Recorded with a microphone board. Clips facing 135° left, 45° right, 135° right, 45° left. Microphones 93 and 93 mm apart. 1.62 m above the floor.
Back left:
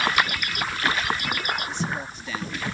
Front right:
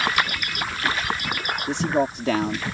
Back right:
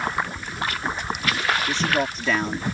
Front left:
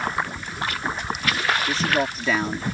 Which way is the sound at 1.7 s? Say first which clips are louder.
Front right 8 dB, even; 45° right.